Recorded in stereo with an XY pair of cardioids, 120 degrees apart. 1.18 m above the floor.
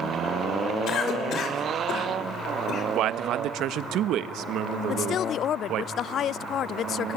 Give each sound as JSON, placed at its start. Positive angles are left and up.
{"t": 0.9, "sound": "a cough", "azimuth_deg": 55, "distance_m": 5.5}
{"t": 3.0, "sound": "a man speaking", "azimuth_deg": -70, "distance_m": 1.2}
{"t": 4.9, "sound": "a woman speaking", "azimuth_deg": 55, "distance_m": 0.5}